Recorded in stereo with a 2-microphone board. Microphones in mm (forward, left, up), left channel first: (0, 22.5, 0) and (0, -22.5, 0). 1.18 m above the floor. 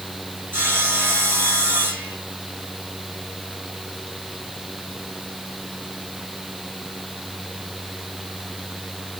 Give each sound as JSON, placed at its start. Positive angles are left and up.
{"t": 0.5, "sound": "sawing", "side_deg": -55, "distance_m": 8.0}